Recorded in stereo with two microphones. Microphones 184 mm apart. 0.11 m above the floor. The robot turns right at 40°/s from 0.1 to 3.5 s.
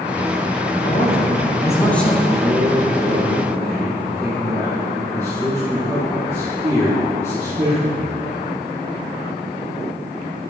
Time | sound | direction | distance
0.8 | a man speaking | 125° left | 2.5 m
2.4 | a man speaking | 65° right | 2.5 m